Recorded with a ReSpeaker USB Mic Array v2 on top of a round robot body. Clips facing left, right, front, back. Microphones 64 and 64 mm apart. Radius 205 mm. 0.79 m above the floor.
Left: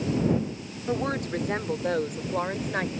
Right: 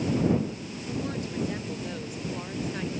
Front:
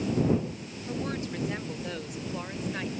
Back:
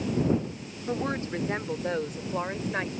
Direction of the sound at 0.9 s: 125° left.